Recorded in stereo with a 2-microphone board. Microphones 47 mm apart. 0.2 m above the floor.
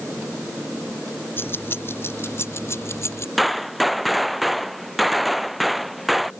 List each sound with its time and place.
1.4 s keys jangling: 50° left (ahead or behind); by 3.3 s 65° left (ahead or behind)
3.4 s a gunshot: centre (ahead or behind)